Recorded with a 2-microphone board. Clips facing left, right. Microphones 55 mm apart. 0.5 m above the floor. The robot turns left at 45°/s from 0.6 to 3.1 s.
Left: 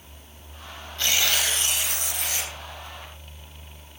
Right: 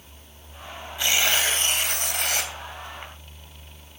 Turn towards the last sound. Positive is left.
turn(degrees=-115)